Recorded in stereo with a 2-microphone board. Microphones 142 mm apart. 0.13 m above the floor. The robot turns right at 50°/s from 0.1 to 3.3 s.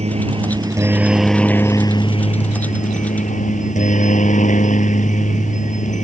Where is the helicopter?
60° right; by 6.0 s 100° left.